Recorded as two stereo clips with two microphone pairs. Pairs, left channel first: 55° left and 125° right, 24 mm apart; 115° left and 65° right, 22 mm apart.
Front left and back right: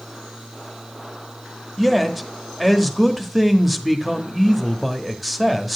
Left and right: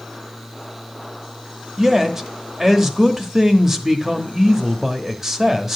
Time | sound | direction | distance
1.8 | a man speaking | 50° right | 0.9 m